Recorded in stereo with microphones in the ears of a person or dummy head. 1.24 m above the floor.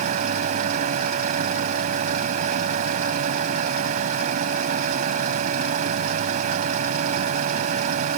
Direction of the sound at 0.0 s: 45° right (ahead or behind).